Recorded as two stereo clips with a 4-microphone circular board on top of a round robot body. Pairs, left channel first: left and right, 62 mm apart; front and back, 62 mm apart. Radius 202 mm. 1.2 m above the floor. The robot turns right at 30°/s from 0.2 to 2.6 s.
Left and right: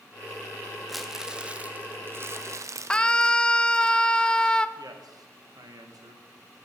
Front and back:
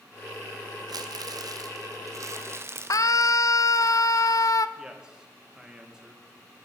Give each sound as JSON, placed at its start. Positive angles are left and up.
{"t": 0.9, "sound": "crumpling", "azimuth_deg": 180, "distance_m": 0.9}
{"t": 2.9, "sound": "a scream", "azimuth_deg": 15, "distance_m": 0.9}
{"t": 4.8, "sound": "a man speaking", "azimuth_deg": -100, "distance_m": 2.0}